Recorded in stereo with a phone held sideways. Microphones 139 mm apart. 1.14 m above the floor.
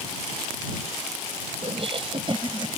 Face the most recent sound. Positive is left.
turn(degrees=-35)  # may be behind; listen again after turning